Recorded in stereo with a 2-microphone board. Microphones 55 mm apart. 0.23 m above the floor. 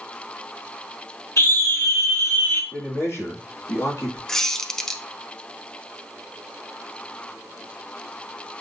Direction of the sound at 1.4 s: 60° left (ahead or behind).